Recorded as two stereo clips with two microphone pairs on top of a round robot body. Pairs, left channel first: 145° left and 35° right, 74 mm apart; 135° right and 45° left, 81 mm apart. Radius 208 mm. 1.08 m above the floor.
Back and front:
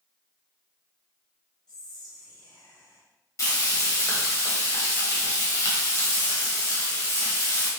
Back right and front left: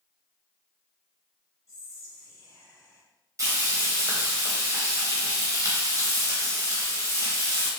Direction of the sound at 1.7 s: 175° left.